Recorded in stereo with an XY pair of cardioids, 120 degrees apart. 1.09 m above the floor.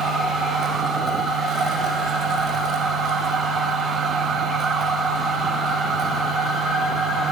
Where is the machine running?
45° right, 5.5 m.